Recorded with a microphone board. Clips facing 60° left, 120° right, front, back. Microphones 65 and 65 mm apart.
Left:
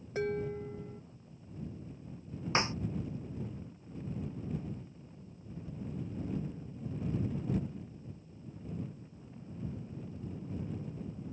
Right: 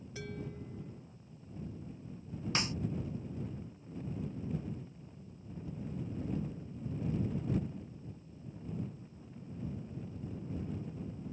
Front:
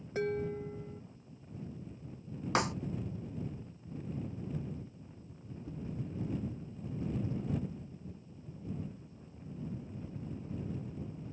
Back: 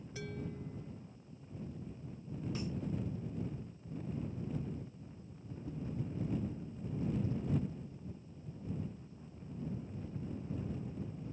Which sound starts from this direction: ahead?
A snare drum, at 2.5 s.